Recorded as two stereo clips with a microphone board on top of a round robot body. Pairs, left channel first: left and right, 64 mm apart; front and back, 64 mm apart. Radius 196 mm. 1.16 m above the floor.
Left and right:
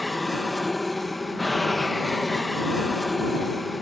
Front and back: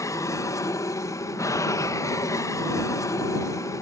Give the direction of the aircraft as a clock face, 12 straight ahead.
12 o'clock.